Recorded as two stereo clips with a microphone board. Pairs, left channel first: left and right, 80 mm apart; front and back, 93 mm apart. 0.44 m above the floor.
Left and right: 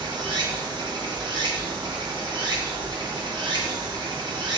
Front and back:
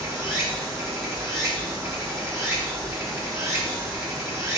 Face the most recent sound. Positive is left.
turn(degrees=-115)